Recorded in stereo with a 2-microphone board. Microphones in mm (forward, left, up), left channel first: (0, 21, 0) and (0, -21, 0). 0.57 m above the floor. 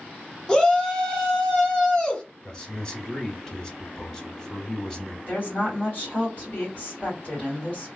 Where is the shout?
20° left (ahead or behind), 1.4 m.